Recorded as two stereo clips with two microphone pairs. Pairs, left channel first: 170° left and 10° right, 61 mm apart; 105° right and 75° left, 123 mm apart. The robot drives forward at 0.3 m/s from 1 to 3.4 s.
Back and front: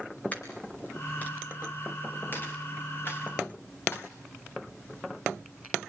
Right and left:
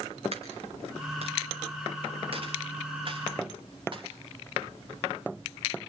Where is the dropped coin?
105° left, 2.5 m; by 4.1 s 120° left, 3 m.